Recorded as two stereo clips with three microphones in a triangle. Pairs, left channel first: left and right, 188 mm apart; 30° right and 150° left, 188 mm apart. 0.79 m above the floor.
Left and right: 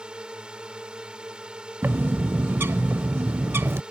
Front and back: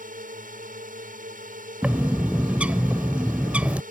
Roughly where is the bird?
Behind right.